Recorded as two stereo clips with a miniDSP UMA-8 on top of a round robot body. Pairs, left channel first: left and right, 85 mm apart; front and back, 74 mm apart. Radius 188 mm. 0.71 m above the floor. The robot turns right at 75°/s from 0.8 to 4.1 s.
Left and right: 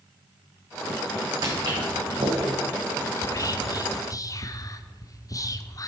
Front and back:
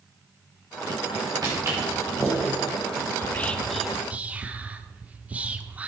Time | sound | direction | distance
1.4 | footsteps | 140° right | 3.5 m
3.2 | whispering | 45° left | 1.1 m